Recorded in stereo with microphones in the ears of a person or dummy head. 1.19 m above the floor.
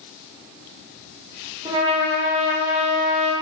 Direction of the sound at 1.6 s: 20° right (ahead or behind).